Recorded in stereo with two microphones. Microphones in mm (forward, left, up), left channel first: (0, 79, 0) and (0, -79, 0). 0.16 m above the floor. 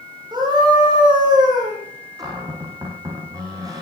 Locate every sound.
0.3 s a scream: 25° right (ahead or behind), 7 m
2.2 s a cupboard door: 20° right (ahead or behind), 5 m